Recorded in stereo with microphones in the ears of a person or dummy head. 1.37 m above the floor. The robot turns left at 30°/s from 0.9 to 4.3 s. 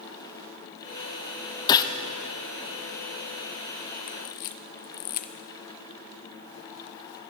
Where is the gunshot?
30° left (ahead or behind), 0.6 m; by 1.9 s 25° left (ahead or behind), 0.6 m.